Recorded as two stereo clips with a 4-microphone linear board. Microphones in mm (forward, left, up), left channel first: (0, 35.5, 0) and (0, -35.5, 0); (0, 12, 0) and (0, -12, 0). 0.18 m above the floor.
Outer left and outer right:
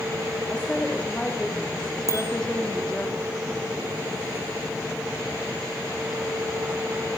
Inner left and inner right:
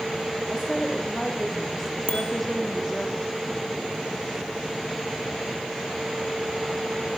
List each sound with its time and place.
0.5 s a woman speaking: 10° left (ahead or behind), 7 m
2.1 s a bicycle bell: 45° left (ahead or behind), 3.5 m